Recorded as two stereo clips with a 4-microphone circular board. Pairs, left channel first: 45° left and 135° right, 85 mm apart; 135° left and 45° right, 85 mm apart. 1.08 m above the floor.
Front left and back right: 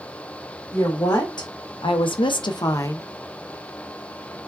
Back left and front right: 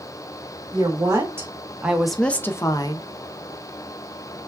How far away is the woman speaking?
About 1.3 m.